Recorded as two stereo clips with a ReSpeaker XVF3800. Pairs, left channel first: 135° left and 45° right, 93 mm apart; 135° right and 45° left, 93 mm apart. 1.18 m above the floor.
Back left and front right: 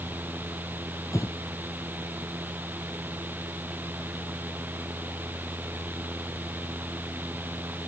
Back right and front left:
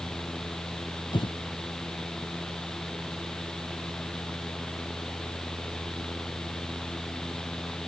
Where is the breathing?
170° right.